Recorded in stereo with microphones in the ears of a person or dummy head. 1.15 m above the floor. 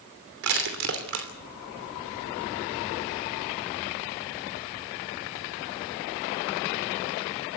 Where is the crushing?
70° right (ahead or behind), 3 m.